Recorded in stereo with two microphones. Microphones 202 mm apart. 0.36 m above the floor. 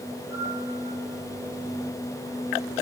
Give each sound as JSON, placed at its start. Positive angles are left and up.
{"t": 0.3, "sound": "a piano", "side_deg": 75, "distance_m": 4.5}